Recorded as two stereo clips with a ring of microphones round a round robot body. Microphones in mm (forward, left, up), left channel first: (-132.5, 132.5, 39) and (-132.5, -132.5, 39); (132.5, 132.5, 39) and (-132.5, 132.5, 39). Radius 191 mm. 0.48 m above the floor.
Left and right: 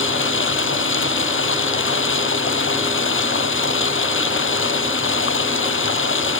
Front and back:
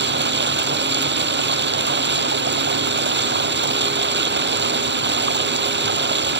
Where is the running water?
130° left.